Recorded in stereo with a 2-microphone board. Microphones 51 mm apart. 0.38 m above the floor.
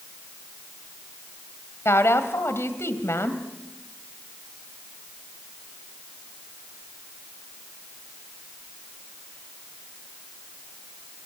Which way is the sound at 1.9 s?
60° left (ahead or behind).